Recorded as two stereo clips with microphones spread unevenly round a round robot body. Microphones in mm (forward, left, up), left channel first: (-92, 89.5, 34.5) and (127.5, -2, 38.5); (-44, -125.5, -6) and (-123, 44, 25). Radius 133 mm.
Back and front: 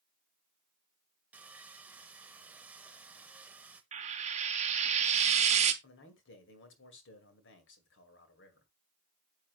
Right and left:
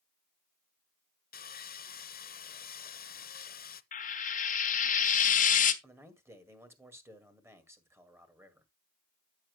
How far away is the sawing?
About 0.7 m.